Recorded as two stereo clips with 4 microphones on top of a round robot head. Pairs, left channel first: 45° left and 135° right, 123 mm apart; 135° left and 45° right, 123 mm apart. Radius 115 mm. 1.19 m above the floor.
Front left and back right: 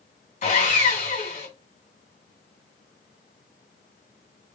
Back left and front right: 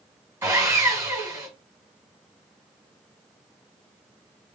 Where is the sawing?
25° left, 1.8 m.